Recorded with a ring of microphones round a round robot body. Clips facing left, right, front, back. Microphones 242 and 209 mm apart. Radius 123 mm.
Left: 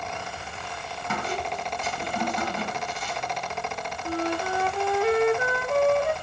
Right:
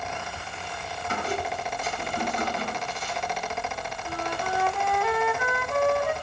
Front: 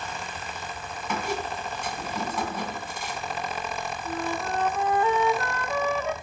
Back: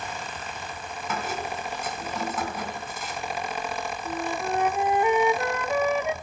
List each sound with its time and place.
1.1 s a squeak: 95° left, 3 m
4.0 s a flute: 120° left, 0.7 m